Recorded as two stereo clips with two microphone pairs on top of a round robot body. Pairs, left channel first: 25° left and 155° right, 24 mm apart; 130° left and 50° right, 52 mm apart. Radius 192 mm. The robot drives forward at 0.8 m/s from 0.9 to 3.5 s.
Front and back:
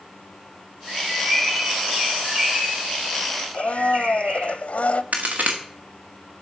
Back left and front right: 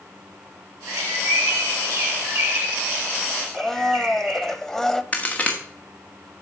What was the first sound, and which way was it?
A bird, 60° right.